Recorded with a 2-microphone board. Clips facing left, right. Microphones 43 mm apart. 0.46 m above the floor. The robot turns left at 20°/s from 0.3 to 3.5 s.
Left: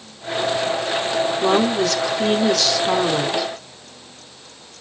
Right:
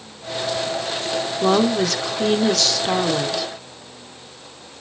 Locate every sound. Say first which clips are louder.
1.4 s a woman speaking: right 2 dB; 5° right (ahead or behind), 0.7 m; by 3.5 s 10° left (ahead or behind), 0.7 m